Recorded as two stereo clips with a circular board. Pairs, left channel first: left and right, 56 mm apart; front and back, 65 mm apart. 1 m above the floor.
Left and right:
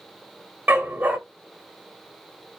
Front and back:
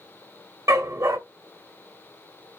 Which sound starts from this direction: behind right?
A dog barking, at 0.7 s.